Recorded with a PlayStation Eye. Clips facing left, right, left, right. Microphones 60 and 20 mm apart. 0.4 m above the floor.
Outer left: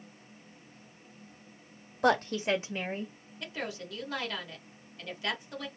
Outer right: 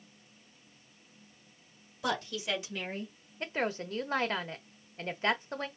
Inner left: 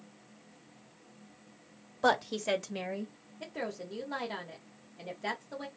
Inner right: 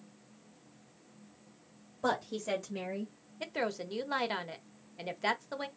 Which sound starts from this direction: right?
A woman speaking, at 3.4 s.